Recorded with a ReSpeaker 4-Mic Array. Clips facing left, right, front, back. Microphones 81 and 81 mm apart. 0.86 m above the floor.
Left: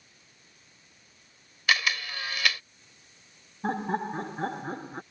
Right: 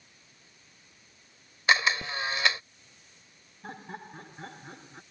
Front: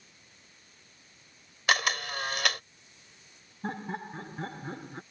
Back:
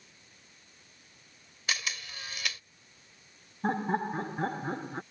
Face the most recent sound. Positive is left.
turn(degrees=125)